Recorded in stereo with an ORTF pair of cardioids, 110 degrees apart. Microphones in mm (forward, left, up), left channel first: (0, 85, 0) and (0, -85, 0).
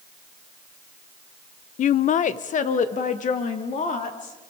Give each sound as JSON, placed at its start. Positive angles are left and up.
{"t": 1.8, "sound": "a woman speaking", "azimuth_deg": 50, "distance_m": 0.5}